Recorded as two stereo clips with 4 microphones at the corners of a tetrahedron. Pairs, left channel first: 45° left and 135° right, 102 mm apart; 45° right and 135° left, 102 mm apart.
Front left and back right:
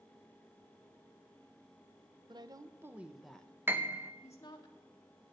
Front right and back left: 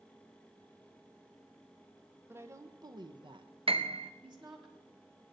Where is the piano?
155° left, 0.6 m.